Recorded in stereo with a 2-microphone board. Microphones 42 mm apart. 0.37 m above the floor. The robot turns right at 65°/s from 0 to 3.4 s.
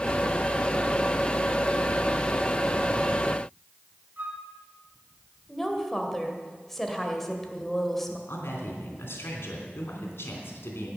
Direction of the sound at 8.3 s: 70° left (ahead or behind).